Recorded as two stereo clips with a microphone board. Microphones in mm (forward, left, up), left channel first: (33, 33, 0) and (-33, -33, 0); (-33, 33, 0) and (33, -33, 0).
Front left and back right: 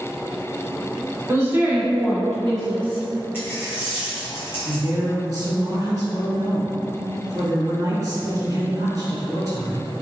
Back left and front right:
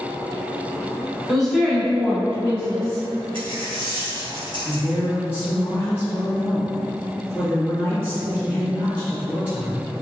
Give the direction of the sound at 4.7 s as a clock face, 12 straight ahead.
6 o'clock.